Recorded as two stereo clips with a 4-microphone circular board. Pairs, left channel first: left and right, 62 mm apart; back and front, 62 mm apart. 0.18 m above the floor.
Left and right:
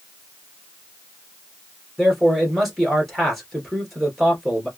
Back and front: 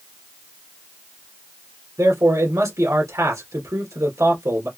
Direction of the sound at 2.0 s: Straight ahead.